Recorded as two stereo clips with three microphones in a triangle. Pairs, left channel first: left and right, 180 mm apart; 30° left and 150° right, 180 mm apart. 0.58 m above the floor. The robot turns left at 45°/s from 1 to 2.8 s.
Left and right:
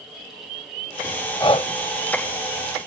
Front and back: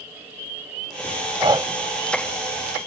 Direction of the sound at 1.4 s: 155° left.